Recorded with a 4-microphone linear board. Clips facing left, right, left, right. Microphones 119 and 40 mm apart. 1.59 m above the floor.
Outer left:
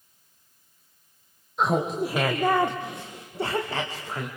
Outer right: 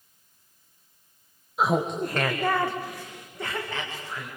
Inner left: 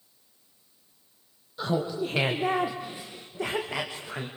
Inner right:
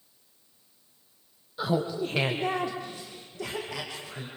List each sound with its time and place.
1.6 s laughter: 5° right (ahead or behind), 1.4 m; by 4.3 s 40° left (ahead or behind), 2.5 m